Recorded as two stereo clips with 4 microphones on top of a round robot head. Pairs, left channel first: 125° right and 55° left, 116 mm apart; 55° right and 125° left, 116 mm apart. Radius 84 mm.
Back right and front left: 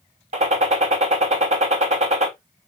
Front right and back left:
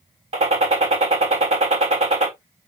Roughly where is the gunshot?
Left.